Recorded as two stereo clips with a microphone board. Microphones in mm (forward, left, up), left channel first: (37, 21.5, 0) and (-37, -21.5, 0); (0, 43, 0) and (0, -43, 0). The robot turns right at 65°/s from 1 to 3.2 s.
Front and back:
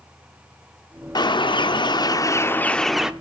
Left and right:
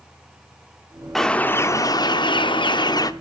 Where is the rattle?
No rattle in this recording.